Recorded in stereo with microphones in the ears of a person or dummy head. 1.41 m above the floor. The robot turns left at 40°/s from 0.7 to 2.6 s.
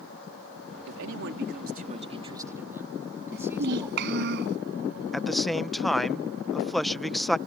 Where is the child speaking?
60° right (ahead or behind).